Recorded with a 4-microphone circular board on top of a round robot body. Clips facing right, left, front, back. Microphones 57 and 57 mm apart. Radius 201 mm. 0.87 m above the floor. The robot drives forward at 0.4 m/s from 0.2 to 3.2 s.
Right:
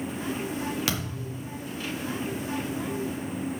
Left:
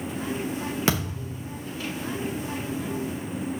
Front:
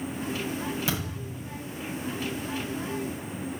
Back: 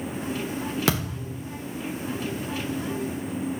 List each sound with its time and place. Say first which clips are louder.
0.9 s a thud: left 4 dB, back 5 dB; 155° left, 1.3 m